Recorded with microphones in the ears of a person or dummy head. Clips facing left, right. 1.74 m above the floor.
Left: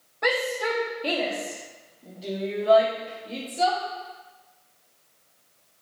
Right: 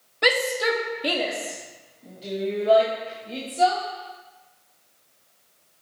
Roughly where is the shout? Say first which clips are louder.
Right 3 dB; right.